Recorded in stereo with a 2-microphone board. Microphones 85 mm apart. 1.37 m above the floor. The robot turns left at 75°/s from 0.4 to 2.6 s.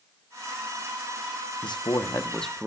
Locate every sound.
1.6 s a man speaking: 70° left, 1.1 m; by 2.7 s 5° right, 1.1 m